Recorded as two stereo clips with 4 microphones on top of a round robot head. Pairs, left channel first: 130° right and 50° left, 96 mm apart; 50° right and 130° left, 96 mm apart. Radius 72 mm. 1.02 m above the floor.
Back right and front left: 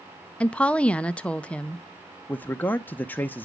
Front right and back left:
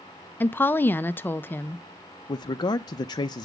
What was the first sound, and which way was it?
A woman speaking, 75° right.